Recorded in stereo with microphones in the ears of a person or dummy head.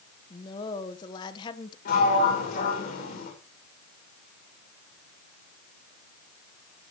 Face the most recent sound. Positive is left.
turn(degrees=50)  # may be behind; listen again after turning